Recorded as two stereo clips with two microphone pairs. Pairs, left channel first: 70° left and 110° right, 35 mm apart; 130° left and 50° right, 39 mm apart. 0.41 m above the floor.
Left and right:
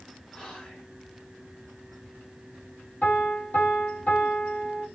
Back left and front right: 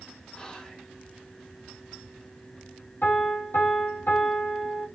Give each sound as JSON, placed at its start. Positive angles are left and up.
{"t": 0.3, "sound": "whispering", "azimuth_deg": 115, "distance_m": 1.2}
{"t": 3.0, "sound": "a piano", "azimuth_deg": 120, "distance_m": 4.0}